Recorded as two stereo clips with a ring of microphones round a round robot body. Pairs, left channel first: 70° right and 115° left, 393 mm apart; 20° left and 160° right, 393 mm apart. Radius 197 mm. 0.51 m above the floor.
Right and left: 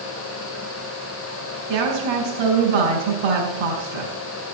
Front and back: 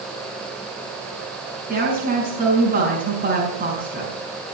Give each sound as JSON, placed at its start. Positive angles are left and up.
{"t": 1.7, "sound": "a woman speaking", "azimuth_deg": 135, "distance_m": 5.5}